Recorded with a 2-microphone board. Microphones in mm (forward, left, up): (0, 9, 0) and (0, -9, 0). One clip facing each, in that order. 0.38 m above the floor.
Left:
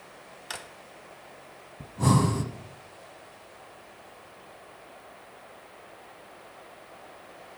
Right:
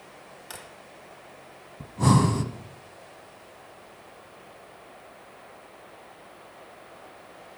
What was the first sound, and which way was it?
A drawer, 30° left (ahead or behind).